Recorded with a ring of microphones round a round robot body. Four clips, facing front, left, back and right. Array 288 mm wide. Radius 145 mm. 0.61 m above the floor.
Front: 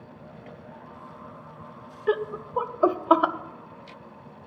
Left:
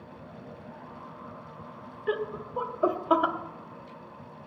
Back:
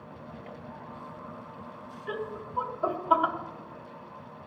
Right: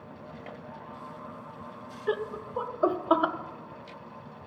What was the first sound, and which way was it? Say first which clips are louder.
Laughter: even, front 10 dB; 5° right.